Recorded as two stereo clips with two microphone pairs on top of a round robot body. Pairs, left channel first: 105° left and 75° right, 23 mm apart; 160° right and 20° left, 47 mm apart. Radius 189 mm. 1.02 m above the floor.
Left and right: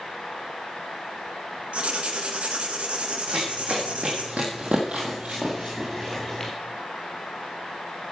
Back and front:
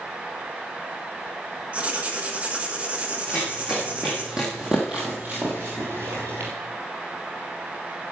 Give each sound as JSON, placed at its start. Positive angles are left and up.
{"t": 1.7, "sound": "writing", "azimuth_deg": -40, "distance_m": 1.6}
{"t": 3.3, "sound": "running footsteps", "azimuth_deg": -60, "distance_m": 2.5}